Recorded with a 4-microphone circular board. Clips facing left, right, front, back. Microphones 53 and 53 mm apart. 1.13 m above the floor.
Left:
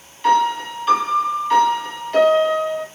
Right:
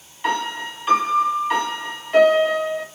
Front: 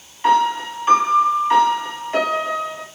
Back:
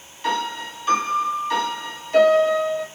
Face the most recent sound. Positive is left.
turn(degrees=-25)